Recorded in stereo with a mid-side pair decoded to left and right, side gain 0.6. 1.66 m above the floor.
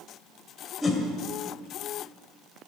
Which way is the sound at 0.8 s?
25° left.